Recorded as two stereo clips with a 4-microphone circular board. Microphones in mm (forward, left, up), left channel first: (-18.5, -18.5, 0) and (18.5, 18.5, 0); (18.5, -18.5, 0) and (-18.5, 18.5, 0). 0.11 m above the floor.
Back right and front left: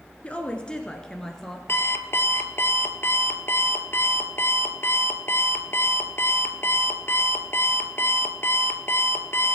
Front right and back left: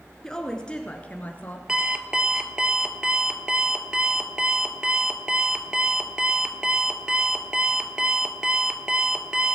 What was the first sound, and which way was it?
A woman speaking, 115° right.